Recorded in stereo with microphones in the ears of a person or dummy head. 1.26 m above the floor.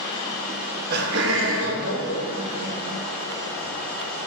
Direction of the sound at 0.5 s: 35° right (ahead or behind).